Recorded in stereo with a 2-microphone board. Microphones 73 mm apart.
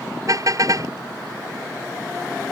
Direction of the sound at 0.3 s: 50° right (ahead or behind).